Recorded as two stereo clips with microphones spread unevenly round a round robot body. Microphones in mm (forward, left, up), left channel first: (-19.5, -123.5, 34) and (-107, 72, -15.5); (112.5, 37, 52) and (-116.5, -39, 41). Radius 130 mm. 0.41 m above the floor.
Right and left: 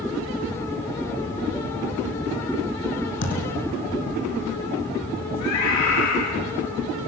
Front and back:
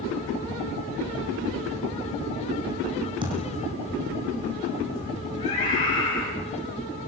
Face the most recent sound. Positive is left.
turn(degrees=-45)